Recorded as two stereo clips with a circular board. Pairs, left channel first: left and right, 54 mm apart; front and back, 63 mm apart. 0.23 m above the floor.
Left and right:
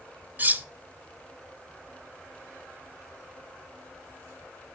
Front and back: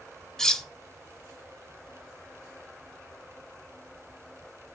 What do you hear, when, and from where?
0.4 s cutlery clinking: 70° right, 0.6 m